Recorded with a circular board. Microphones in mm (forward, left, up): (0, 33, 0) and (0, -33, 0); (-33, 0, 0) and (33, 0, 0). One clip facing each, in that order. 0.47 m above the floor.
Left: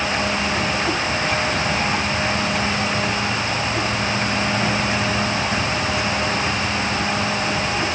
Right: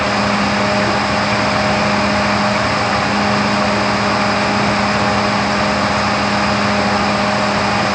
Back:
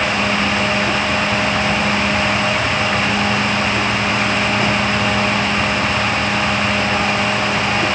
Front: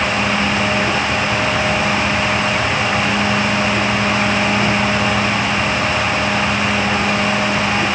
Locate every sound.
Only background noise.